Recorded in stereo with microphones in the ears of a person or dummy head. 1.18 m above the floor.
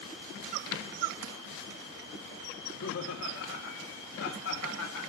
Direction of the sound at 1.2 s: 85° right.